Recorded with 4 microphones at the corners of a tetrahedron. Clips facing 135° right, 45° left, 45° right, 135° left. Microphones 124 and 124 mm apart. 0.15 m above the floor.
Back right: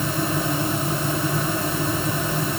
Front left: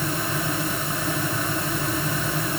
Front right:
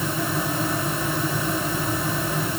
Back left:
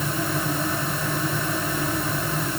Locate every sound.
Only background noise.